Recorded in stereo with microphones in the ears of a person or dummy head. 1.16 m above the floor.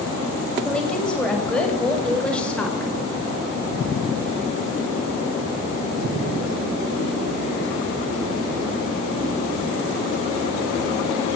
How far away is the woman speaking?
About 6 m.